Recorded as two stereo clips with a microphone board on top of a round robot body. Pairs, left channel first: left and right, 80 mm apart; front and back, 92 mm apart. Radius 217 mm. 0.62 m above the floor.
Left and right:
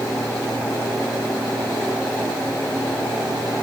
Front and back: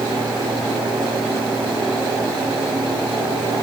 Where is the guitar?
I don't hear a guitar.